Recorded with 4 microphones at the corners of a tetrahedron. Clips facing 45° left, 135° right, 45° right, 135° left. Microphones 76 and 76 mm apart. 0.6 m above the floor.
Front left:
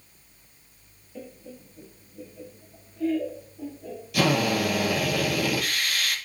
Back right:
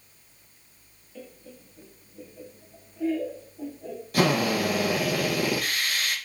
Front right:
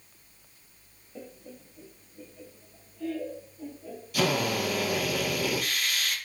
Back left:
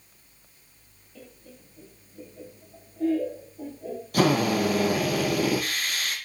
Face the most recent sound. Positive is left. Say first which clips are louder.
# even, back left 5 dB
turn(degrees=175)